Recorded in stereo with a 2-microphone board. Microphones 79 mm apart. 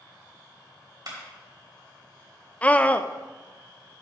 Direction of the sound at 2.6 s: 20° left (ahead or behind).